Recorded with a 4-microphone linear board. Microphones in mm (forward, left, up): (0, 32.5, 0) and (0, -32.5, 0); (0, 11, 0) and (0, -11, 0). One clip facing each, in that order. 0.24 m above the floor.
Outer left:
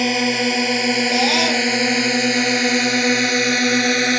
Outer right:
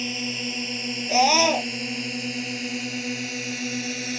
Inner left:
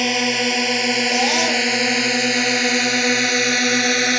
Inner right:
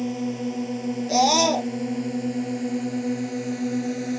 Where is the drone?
70° left (ahead or behind).